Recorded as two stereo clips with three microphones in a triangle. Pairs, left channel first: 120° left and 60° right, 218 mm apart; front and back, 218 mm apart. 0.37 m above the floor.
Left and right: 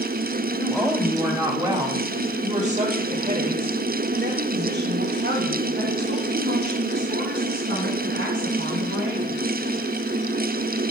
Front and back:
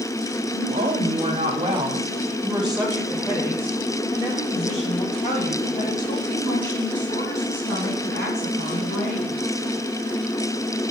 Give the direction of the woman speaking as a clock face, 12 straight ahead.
5 o'clock.